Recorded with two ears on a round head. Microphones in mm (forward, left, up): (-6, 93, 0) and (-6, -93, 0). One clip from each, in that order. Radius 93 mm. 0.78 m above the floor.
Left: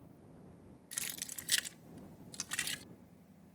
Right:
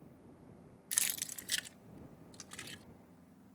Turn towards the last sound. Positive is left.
turn(degrees=50)  # may be behind; listen again after turning